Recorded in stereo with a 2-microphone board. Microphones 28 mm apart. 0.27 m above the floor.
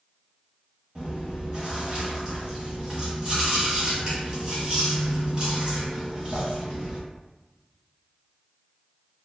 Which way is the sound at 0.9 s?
30° right (ahead or behind).